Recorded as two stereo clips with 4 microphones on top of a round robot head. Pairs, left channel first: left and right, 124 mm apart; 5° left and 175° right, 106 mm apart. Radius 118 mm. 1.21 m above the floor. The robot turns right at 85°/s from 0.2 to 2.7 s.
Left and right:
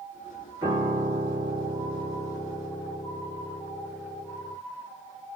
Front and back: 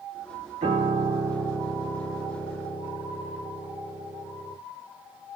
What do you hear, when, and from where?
0.6 s a piano: 165° right, 1.0 m; by 4.6 s 15° left, 1.0 m